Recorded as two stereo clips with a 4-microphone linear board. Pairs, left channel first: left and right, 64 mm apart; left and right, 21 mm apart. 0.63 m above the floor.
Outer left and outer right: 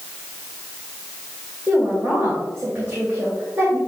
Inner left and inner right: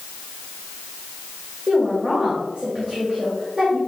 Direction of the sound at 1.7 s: 25° right (ahead or behind).